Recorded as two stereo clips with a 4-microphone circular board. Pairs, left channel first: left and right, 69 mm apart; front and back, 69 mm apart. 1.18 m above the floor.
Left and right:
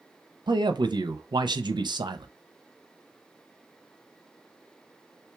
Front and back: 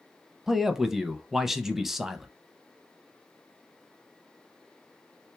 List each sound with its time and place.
0.5 s a man speaking: 95° right, 0.6 m